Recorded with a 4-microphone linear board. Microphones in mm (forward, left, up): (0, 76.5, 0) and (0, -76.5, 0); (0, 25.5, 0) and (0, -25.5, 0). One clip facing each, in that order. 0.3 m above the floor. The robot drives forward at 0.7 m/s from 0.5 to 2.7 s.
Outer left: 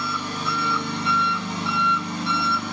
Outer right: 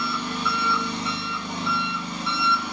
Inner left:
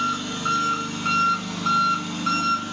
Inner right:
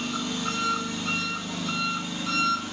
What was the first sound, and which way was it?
An engine running, 45° left (ahead or behind).